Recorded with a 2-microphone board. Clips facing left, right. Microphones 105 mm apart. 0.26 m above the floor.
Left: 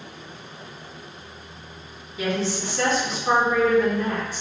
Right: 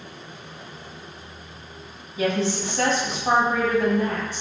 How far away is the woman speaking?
About 1.5 m.